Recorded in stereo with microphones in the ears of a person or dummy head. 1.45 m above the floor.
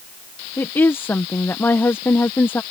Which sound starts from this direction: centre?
A woman speaking, at 0.6 s.